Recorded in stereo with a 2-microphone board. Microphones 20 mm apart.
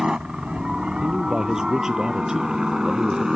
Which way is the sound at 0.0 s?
50° right (ahead or behind).